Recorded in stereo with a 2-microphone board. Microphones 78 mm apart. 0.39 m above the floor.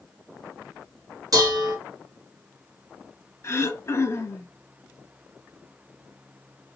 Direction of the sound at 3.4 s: 40° left (ahead or behind).